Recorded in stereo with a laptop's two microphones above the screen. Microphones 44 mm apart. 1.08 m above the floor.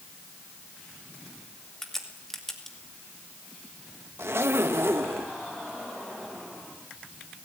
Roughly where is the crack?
Centre.